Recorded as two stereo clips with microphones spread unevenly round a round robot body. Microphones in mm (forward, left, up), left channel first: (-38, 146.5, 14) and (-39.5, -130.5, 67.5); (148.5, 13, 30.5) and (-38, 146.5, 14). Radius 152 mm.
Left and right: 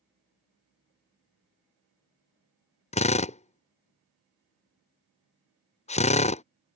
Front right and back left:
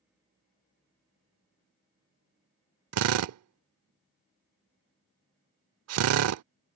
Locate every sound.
2.9 s a drill: 155° left